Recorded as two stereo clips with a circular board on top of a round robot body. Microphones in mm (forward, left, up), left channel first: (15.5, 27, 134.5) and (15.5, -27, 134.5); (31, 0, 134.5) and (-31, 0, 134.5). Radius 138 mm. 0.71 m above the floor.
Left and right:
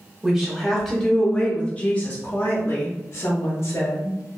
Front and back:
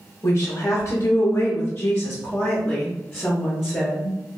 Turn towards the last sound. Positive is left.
turn(degrees=95)